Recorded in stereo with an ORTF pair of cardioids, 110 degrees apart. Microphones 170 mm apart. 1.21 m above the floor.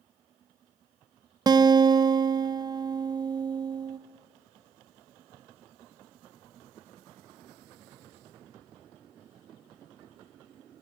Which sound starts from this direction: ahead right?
A guitar, at 1.5 s.